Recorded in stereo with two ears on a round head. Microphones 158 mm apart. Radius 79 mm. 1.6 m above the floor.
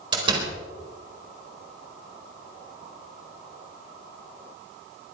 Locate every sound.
0.1 s a door slam: 25° right (ahead or behind), 4.5 m